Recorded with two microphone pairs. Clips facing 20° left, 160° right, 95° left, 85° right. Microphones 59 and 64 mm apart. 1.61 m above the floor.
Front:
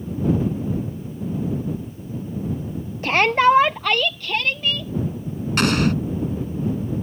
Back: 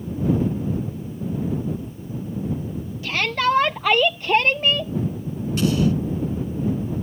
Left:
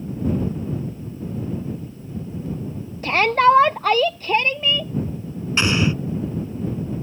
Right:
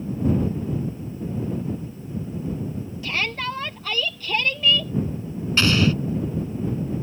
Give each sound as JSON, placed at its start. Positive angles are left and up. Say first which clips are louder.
{"t": 3.0, "sound": "a shout", "louder": "front 6 dB, left 13 dB", "azimuth_deg": 55}
{"t": 5.6, "sound": "an explosion", "louder": "front 1 dB, even", "azimuth_deg": 20}